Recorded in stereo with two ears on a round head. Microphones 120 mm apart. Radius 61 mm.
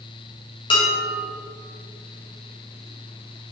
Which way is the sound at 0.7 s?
40° left (ahead or behind).